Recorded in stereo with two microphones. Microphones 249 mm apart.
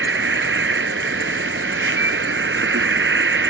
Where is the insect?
55° right (ahead or behind).